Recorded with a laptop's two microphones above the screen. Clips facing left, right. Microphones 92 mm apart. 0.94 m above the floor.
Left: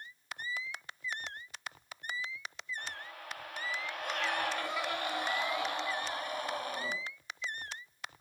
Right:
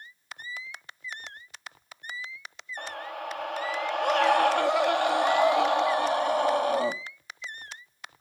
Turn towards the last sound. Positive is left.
turn(degrees=-75)  # may be behind; listen again after turning